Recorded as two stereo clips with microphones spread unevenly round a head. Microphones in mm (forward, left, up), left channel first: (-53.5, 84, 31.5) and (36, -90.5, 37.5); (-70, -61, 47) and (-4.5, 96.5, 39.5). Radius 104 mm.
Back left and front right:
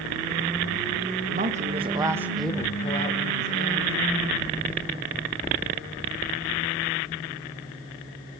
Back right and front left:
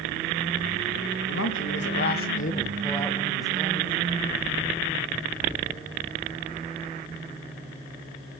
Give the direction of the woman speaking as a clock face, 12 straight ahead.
4 o'clock.